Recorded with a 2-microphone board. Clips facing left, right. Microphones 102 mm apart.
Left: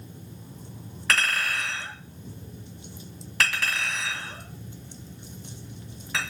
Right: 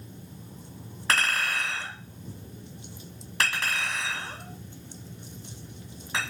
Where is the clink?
25° right (ahead or behind), 1.7 m.